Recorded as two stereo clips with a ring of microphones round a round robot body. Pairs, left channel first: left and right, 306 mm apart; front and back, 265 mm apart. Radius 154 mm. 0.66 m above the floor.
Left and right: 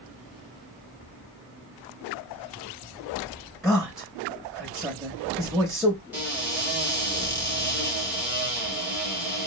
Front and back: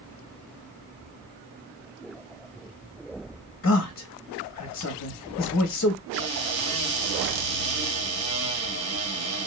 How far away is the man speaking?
About 0.7 m.